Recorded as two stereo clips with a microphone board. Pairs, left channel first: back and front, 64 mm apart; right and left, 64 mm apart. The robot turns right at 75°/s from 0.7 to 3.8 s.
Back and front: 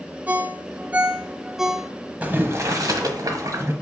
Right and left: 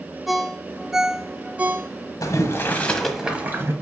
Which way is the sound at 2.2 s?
70° right.